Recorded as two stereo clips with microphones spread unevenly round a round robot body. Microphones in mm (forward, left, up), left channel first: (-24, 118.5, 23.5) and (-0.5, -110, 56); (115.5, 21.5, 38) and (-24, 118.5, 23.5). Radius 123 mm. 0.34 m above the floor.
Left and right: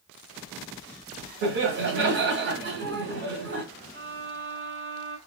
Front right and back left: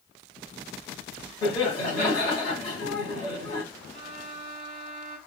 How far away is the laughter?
About 1.2 m.